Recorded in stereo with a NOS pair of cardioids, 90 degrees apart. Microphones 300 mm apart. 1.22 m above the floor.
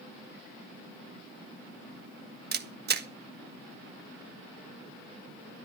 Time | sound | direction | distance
2.5 | a camera shutter | 35° right | 1.4 m